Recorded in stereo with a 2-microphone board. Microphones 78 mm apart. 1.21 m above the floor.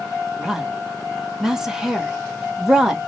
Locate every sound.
0.4 s a woman speaking: 5° right (ahead or behind), 1.6 m